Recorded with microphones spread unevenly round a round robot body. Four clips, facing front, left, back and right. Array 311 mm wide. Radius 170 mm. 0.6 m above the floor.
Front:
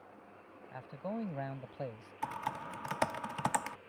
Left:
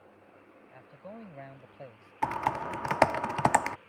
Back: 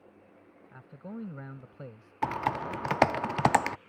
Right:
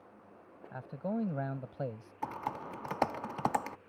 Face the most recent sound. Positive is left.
turn(degrees=135)